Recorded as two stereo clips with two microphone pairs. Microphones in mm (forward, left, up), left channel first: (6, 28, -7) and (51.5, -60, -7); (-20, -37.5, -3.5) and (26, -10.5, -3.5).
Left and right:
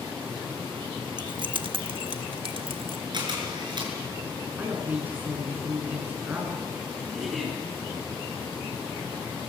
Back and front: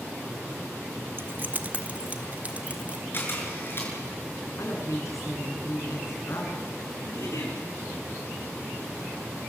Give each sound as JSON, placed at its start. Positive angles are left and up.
{"t": 1.2, "sound": "keys jangling", "azimuth_deg": -20, "distance_m": 0.7}
{"t": 3.1, "sound": "a camera shutter", "azimuth_deg": -105, "distance_m": 6.0}
{"t": 4.6, "sound": "a woman speaking", "azimuth_deg": -135, "distance_m": 8.0}
{"t": 7.1, "sound": "a giggle", "azimuth_deg": -150, "distance_m": 8.0}